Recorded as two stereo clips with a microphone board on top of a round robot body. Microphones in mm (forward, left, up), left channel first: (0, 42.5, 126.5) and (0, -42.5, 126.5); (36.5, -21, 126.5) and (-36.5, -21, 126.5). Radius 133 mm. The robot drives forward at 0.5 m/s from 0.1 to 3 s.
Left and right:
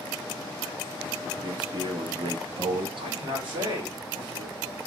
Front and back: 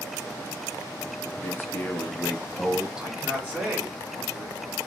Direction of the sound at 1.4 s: 55° right.